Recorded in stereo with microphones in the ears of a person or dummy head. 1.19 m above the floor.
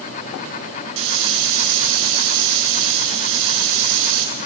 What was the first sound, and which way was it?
A hiss, 70° right (ahead or behind).